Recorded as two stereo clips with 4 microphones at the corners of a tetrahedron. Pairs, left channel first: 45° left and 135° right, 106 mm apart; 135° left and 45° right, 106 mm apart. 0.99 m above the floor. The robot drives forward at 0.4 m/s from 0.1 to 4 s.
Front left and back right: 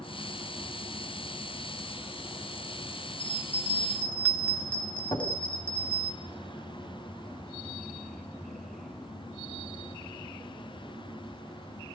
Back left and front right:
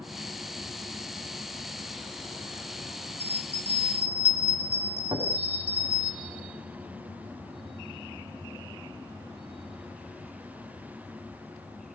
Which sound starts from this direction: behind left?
A bell, at 3.2 s.